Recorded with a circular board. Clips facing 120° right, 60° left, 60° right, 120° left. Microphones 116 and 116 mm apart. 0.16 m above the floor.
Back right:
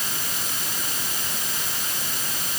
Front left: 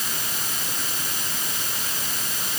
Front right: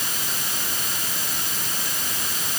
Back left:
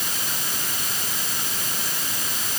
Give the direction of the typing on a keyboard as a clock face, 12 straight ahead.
No typing on a keyboard in this recording.